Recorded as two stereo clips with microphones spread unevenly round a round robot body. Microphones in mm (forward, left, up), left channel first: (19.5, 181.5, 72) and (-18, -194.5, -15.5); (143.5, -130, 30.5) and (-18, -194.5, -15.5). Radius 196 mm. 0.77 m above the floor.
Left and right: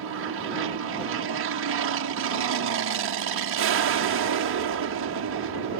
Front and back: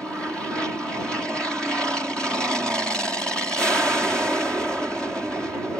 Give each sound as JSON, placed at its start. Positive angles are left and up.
{"t": 0.0, "sound": "an aircraft", "azimuth_deg": -75}